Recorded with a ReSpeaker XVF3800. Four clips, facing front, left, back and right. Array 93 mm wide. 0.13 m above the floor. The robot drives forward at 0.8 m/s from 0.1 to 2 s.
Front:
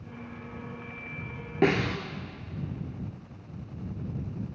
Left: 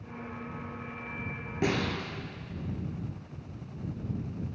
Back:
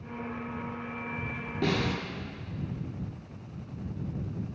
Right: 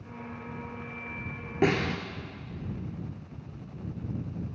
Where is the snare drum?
35° right, 0.7 m; by 2.0 s 55° right, 0.5 m.